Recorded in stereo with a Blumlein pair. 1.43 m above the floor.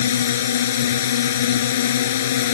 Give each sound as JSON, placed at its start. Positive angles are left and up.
{"t": 0.0, "sound": "a drone", "azimuth_deg": 60}